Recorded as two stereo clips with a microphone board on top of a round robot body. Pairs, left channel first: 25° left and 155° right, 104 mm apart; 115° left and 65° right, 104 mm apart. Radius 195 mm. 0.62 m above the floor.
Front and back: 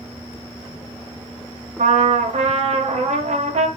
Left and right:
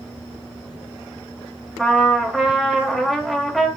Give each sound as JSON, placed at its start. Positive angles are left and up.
{"t": 1.8, "sound": "a trumpet", "azimuth_deg": -160, "distance_m": 1.7}